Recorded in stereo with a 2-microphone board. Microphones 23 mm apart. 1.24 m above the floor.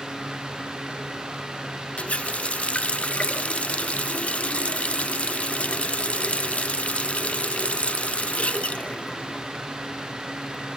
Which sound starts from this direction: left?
A running tap, at 2.0 s.